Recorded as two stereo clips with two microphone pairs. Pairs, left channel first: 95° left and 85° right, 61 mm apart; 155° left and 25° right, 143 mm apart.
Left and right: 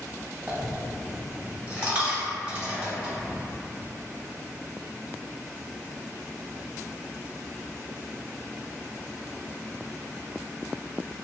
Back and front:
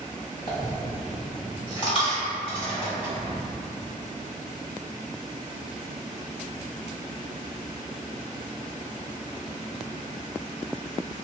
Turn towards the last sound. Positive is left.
turn(degrees=-155)